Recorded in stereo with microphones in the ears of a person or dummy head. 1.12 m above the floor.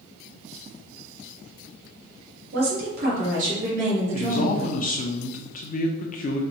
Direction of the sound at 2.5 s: 60° right (ahead or behind).